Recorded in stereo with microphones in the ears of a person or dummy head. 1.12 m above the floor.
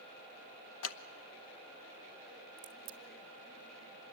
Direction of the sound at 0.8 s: 70° left (ahead or behind).